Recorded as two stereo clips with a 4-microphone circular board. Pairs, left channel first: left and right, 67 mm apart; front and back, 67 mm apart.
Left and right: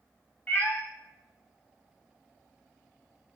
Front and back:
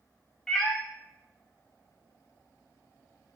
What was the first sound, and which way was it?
A cat meowing, 75° left.